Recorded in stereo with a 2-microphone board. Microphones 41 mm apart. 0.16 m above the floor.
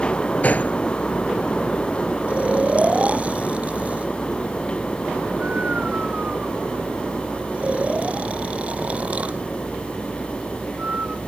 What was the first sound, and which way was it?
A gunshot, 40° left (ahead or behind).